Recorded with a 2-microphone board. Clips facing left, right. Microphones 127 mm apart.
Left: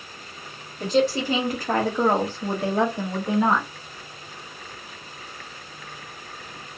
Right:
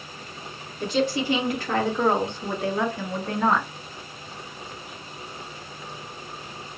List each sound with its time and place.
0.8 s a woman speaking: 40° left (ahead or behind), 1.6 m; by 3.7 s 5° left (ahead or behind), 0.9 m